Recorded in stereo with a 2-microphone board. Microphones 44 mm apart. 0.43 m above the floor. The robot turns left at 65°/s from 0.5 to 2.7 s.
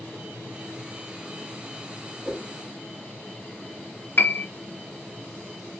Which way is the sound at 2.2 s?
10° left (ahead or behind).